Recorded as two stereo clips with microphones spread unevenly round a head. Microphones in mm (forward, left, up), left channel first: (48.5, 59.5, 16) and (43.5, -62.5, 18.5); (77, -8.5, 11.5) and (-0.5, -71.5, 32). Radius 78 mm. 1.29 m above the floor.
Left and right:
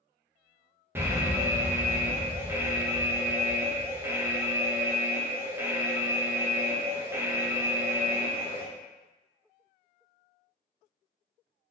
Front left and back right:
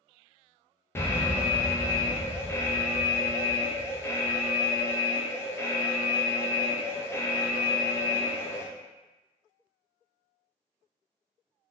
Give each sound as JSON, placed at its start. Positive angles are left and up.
{"t": 0.9, "sound": "an alarm", "azimuth_deg": -30, "distance_m": 0.6}